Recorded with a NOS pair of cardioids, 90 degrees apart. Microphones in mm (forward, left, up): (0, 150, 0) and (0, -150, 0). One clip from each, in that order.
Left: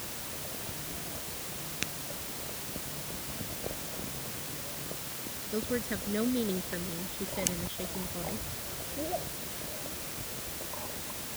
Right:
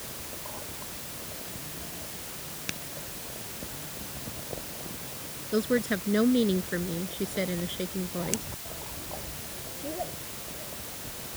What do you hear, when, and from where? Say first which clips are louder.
5.5 s a woman speaking: right 7 dB; 50° right